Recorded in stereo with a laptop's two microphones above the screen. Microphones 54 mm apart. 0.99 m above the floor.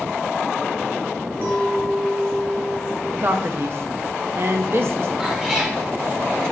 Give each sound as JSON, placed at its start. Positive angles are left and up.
{"t": 1.4, "sound": "a clink", "side_deg": -50, "distance_m": 1.9}
{"t": 3.2, "sound": "a man speaking", "side_deg": -50, "distance_m": 0.9}
{"t": 5.2, "sound": "a cat meowing", "side_deg": -10, "distance_m": 1.3}